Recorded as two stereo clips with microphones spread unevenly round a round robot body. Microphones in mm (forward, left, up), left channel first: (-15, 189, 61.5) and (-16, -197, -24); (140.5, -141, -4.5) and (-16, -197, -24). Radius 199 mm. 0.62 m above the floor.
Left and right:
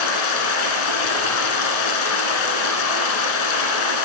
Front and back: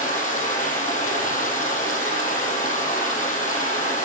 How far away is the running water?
About 2.5 m.